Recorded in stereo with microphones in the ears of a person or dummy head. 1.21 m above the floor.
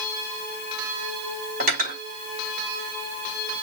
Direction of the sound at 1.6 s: 50° right (ahead or behind).